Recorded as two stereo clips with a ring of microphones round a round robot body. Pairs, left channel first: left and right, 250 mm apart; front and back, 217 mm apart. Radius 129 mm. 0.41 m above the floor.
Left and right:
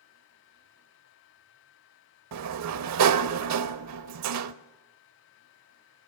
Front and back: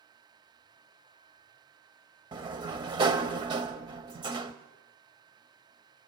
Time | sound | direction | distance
2.3 | a sliding door | 110° right | 0.6 m